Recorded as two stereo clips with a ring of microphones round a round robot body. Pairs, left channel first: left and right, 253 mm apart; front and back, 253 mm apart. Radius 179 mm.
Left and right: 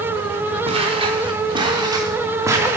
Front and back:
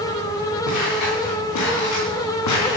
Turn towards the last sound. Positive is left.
turn(degrees=-10)